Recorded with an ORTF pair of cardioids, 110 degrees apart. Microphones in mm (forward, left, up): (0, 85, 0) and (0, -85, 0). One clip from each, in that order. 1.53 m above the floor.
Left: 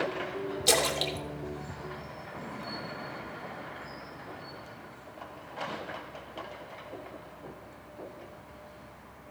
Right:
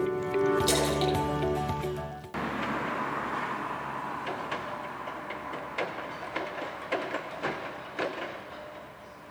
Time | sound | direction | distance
0.7 | a splash | 30° left | 2.5 m